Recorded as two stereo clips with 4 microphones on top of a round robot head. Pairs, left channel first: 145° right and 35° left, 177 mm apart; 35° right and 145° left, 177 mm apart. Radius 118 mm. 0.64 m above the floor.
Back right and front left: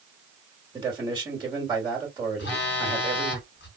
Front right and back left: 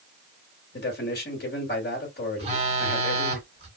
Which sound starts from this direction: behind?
A phone buzzing, at 2.4 s.